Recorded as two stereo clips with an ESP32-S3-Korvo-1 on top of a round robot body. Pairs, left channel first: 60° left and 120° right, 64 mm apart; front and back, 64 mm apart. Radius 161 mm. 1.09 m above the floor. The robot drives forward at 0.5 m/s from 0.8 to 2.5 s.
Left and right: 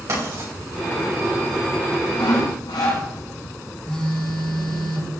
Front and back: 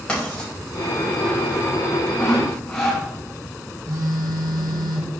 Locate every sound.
0.1 s writing: 75° right, 5.5 m
2.2 s sawing: 75° left, 2 m; by 3.0 s 80° left, 2 m
3.9 s a phone buzzing: 140° left, 1.6 m